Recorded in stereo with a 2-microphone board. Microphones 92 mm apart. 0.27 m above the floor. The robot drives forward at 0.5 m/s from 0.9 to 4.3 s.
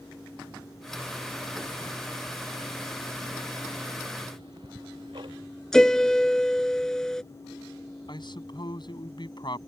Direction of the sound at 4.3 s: 60° right (ahead or behind).